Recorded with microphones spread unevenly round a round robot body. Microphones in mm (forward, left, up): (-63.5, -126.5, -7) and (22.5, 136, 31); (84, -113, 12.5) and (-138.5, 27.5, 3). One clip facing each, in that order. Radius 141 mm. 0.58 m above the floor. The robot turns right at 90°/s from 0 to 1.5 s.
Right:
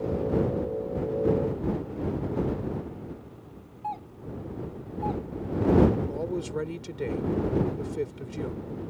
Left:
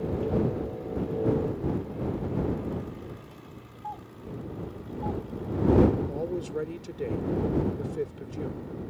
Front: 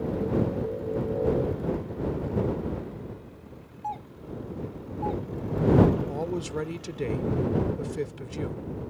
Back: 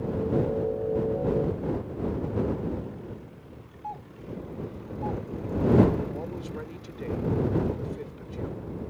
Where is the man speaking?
30° right.